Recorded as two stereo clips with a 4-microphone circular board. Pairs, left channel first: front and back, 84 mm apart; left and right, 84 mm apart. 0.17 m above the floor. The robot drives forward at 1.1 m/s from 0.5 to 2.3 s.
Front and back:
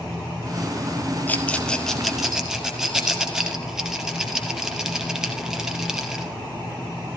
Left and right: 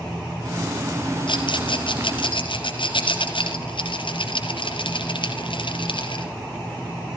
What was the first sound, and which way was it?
A rattle, 70° left.